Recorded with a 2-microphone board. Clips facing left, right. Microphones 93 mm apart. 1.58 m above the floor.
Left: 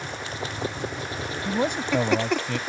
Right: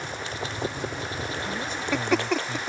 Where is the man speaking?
65° left (ahead or behind).